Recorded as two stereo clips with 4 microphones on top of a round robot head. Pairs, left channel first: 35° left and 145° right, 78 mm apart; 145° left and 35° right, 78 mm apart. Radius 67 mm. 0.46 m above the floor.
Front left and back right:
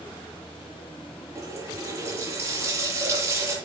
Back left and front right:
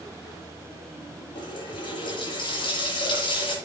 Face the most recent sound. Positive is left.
turn(degrees=160)